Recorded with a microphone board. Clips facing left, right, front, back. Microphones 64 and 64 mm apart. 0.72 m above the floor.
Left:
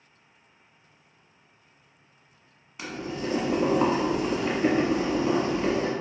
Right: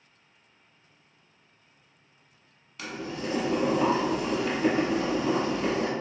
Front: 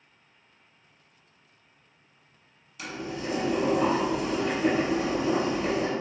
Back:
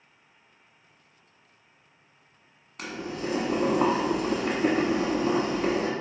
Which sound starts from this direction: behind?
Boiling, at 2.8 s.